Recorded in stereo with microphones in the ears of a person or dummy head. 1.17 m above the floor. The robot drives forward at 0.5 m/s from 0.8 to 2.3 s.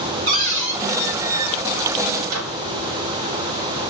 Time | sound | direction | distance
0.3 | a cupboard door | 60° right (ahead or behind) | 1.5 m
2.3 | a microwave | 80° right | 0.9 m